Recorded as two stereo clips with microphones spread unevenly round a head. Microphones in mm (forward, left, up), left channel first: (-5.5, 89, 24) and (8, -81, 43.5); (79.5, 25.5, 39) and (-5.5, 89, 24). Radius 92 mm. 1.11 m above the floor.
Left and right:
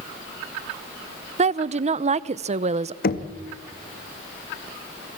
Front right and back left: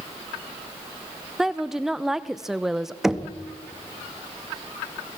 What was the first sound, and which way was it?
A woman speaking, 135° right.